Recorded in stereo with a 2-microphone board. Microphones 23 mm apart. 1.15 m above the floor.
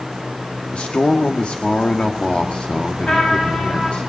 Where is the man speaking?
65° left (ahead or behind), 2 m.